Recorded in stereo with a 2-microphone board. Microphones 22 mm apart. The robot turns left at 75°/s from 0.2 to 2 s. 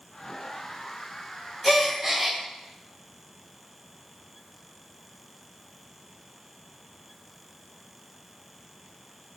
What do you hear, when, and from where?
1.6 s a gasp: centre (ahead or behind), 0.5 m; by 2.4 s 15° right (ahead or behind), 0.5 m